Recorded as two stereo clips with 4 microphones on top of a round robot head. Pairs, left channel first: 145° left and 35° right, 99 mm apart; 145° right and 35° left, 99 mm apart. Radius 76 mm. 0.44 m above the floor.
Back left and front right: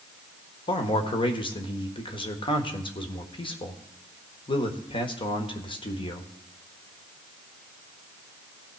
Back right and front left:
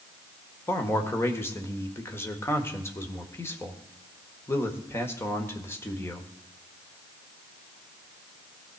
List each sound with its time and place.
0.7 s a man speaking: 155° left, 1.5 m